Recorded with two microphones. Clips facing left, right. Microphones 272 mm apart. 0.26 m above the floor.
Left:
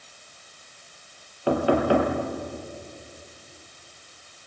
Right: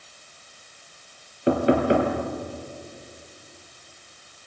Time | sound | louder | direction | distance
1.5 | knocking | right 2 dB | 20° right (ahead or behind) | 4 m